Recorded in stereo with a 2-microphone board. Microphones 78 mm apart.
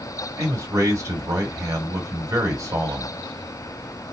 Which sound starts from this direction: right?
A man speaking, at 0.4 s.